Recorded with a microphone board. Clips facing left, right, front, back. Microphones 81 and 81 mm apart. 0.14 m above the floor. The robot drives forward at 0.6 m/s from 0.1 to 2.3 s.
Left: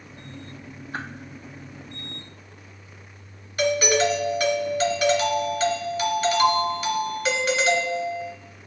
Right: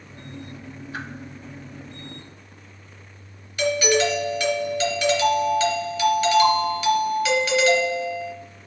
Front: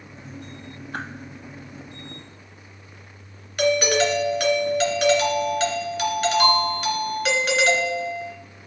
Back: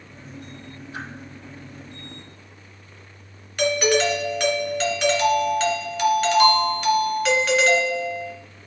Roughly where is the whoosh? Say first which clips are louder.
Left 1 dB, front 3 dB; ahead left.